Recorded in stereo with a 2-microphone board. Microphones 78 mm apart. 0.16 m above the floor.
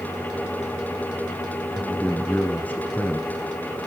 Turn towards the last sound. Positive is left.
turn(degrees=20)  # may be behind; listen again after turning